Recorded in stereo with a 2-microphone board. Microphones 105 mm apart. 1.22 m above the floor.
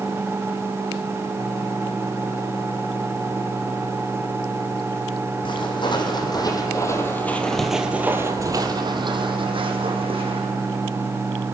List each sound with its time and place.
5.5 s footsteps: 50° left (ahead or behind), 2.5 m; by 10.4 s 65° right (ahead or behind), 3 m